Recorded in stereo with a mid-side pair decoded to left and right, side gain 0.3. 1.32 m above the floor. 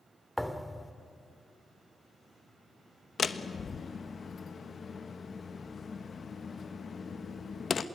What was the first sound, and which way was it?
A thud, 5° left.